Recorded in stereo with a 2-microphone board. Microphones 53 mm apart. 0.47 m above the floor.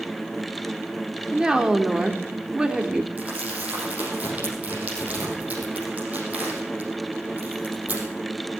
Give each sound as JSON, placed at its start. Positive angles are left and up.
{"t": 1.3, "sound": "a woman speaking", "side_deg": -15, "distance_m": 1.3}
{"t": 3.2, "sound": "crumpling", "side_deg": -30, "distance_m": 5.5}